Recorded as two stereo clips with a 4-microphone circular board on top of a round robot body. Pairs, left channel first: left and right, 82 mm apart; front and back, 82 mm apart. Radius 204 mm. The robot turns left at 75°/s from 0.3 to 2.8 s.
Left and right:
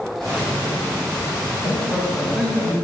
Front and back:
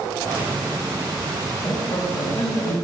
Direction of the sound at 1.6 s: 60° left.